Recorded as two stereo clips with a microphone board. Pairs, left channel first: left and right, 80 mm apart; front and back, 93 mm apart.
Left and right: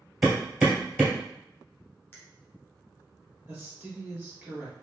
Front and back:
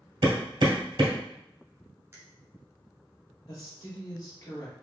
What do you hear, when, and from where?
0.2 s hammering: 165° right, 1.5 m
2.1 s a finger snap: 140° left, 1.0 m
3.5 s a woman speaking: 35° right, 2.0 m